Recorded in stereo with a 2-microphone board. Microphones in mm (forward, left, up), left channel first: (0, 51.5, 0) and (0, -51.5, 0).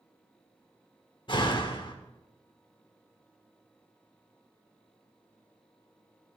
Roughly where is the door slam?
Left.